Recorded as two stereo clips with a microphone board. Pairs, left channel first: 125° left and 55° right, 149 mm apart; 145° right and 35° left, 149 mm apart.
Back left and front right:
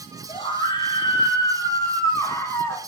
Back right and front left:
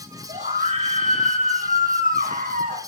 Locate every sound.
0.3 s a scream: 70° left, 7 m; by 2.8 s 50° left, 7.5 m